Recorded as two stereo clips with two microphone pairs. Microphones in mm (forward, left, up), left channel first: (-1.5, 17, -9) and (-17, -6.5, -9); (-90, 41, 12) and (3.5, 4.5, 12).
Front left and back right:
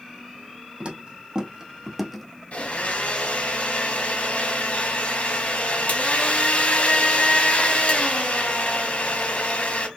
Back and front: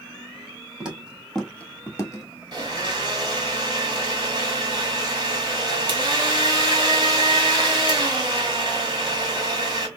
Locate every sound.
0.8 s footsteps: 100° right, 1.5 m; by 2.3 s 135° left, 1.2 m
2.5 s a blender: 25° left, 1.3 m